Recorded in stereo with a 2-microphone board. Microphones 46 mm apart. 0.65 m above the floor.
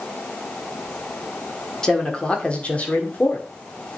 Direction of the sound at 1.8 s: 15° left (ahead or behind).